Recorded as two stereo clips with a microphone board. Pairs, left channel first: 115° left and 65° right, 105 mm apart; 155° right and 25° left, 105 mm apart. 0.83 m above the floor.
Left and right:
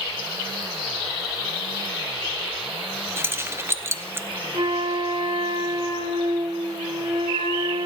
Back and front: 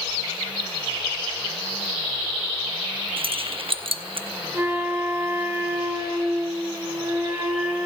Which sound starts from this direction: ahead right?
A flute, at 4.5 s.